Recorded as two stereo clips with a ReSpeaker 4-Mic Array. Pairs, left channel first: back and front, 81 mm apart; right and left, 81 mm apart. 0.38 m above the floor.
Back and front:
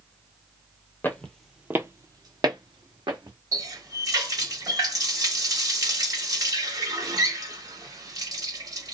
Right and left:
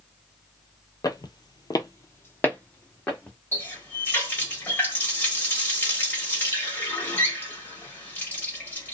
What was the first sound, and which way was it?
Footsteps, 120° right.